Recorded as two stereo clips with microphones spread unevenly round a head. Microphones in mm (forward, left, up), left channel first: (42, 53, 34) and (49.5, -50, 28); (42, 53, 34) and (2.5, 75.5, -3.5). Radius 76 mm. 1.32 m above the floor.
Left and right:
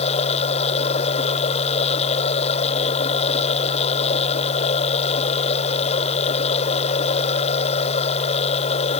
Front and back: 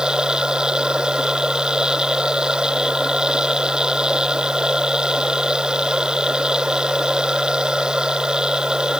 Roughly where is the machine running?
Left.